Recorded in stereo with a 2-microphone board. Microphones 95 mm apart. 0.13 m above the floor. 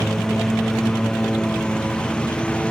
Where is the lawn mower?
5° left (ahead or behind); by 2.7 s 10° left (ahead or behind).